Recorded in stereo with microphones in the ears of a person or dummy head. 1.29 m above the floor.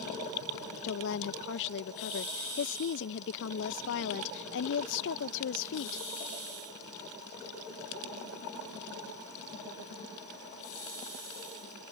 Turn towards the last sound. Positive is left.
turn(degrees=65)  # may be behind; listen again after turning